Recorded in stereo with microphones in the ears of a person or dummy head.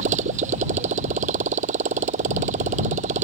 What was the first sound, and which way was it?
A motorcycle, 40° right (ahead or behind).